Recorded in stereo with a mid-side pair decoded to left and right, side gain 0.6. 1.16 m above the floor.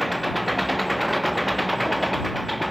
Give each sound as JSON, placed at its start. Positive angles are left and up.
{"t": 0.0, "sound": "an engine running", "azimuth_deg": -5}